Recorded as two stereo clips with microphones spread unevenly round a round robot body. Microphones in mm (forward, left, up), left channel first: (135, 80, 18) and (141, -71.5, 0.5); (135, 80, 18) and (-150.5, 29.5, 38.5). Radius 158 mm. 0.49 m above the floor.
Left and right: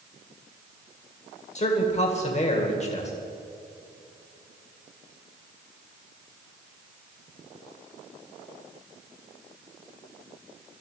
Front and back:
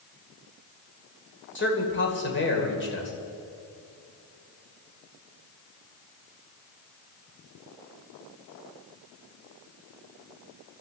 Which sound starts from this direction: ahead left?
A man speaking, at 1.6 s.